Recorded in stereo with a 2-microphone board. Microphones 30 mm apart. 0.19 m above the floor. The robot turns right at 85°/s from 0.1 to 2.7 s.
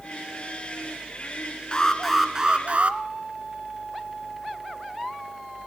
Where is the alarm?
145° left, 1.7 m; by 3.0 s 130° right, 1.7 m.